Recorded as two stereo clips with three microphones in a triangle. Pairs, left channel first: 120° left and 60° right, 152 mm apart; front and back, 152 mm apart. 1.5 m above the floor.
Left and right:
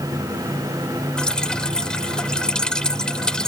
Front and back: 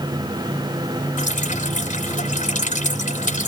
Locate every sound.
1.2 s dripping: 35° left